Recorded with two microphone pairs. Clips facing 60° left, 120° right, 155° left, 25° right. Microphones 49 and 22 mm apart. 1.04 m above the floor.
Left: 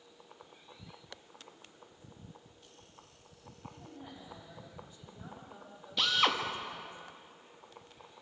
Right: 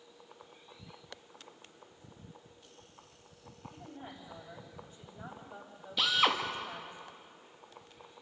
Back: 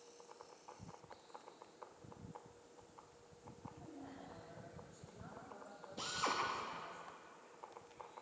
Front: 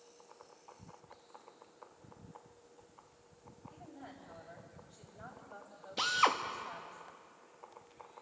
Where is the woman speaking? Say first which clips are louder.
Right 3 dB, front 3 dB; 70° right, 5.5 m.